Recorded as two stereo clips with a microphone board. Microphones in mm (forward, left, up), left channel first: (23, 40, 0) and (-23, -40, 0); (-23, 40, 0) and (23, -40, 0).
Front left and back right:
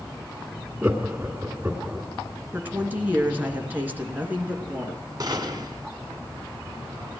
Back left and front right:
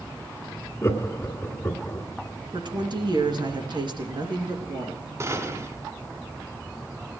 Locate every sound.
0.8 s laughter: 170° left, 2 m
2.5 s a woman speaking: 55° right, 3 m
5.2 s a gunshot: 100° right, 2 m